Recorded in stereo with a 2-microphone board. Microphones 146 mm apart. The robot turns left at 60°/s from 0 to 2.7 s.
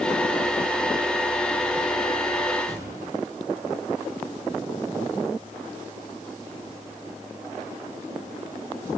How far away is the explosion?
About 9.5 m.